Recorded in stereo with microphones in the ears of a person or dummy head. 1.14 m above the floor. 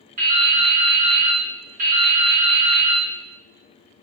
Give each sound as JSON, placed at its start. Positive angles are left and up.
{"t": 0.2, "sound": "dripping", "side_deg": -45, "distance_m": 0.8}